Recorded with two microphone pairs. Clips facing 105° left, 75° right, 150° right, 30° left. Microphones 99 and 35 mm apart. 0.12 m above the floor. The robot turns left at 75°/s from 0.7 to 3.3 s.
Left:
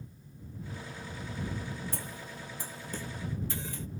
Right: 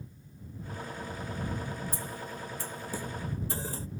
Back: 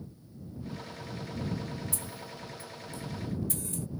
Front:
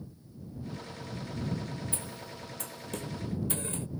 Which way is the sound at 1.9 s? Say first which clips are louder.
Right 3 dB, even; 80° left.